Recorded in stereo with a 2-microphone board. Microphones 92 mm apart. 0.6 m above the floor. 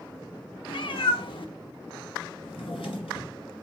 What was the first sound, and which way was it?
A cat meowing, 65° left (ahead or behind).